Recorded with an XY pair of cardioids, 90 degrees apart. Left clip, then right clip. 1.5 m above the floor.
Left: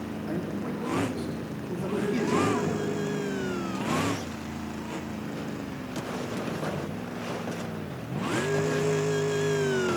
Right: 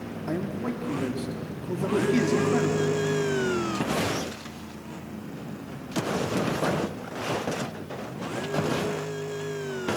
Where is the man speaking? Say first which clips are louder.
Right 4 dB; 40° right, 3.5 m.